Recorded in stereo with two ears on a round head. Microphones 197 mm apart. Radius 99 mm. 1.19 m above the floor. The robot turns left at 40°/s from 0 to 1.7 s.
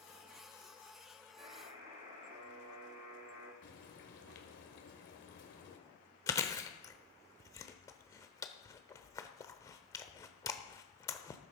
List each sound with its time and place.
1.4 s a buzzer: 35° right (ahead or behind), 6 m; by 3.5 s 45° right (ahead or behind), 6 m
3.6 s frying: 55° left (ahead or behind), 2.5 m
6.3 s chewing: 15° left (ahead or behind), 1.0 m